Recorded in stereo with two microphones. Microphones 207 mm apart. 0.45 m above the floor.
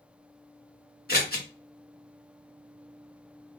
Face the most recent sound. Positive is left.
turn(degrees=45)  # may be behind; listen again after turning